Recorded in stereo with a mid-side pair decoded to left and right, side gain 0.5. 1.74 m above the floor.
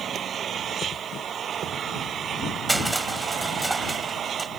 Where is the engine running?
50° right.